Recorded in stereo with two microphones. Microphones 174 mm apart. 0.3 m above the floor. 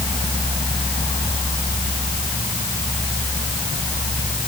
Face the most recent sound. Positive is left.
No sound to turn to.